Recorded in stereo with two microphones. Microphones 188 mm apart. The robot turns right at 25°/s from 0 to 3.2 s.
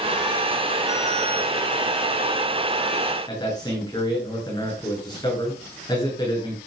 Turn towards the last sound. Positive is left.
turn(degrees=25)  # may be behind; listen again after turning